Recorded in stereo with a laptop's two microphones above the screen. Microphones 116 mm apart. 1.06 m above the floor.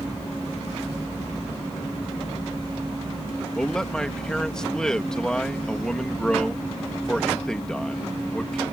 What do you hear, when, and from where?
3.5 s a man speaking: 5° left (ahead or behind)